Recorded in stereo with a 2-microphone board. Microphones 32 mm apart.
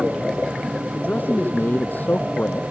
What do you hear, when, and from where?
0.9 s a man speaking: 75° left (ahead or behind); by 2.6 s 70° left (ahead or behind)